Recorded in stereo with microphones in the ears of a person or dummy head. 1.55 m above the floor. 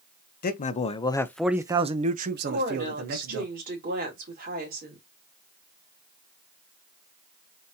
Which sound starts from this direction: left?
A man speaking, at 0.4 s.